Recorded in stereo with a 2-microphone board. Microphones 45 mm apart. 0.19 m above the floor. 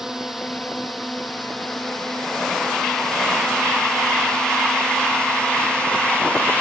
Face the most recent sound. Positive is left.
turn(degrees=25)  # may be behind; listen again after turning